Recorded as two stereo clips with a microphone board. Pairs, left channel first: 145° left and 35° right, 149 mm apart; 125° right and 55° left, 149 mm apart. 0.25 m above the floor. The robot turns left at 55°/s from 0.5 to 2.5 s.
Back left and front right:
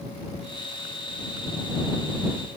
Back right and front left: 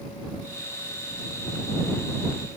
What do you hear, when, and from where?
Only background noise.